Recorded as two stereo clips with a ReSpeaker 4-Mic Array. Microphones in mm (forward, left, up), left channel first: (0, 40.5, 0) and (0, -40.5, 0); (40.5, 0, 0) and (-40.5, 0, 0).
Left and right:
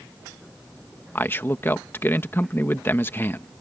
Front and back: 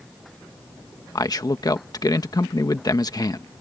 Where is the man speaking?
30° left.